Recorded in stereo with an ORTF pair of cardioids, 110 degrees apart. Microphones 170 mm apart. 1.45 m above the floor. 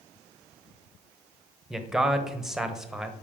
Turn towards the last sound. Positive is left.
turn(degrees=-5)